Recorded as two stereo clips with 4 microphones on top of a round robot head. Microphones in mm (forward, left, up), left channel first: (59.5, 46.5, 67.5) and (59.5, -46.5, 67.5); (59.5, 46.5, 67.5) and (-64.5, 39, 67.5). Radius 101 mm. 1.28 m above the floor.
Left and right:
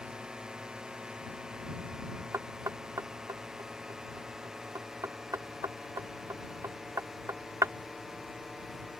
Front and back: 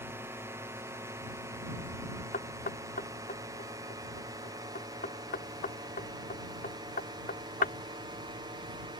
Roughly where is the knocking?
Ahead right.